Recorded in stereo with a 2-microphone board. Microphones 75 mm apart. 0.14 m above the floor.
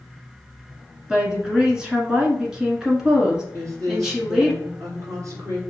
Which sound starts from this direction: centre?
A woman speaking, at 1.1 s.